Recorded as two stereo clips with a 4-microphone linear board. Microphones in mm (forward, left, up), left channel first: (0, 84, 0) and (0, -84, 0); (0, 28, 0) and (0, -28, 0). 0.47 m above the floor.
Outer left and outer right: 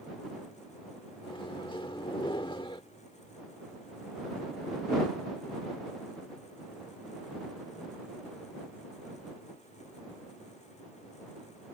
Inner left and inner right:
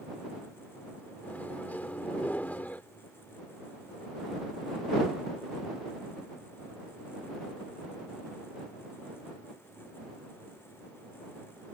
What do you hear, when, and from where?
1.2 s a microwave: 30° left (ahead or behind)